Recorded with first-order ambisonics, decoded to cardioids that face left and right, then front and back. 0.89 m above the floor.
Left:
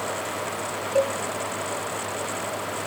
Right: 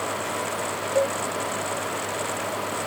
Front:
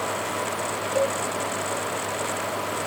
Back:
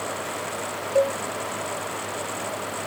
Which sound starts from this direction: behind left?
A cowbell, at 0.9 s.